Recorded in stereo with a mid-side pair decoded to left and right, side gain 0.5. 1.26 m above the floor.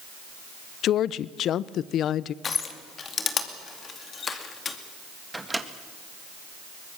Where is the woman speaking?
65° left, 0.6 m.